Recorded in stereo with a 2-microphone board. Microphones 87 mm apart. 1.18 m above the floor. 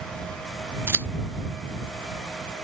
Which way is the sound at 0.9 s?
25° right (ahead or behind).